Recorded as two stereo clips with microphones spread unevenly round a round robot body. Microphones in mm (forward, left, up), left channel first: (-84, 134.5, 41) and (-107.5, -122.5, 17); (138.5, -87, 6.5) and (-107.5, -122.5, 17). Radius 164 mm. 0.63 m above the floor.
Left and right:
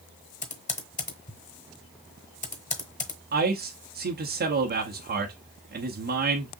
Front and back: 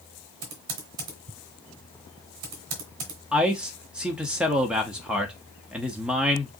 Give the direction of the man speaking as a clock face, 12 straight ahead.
3 o'clock.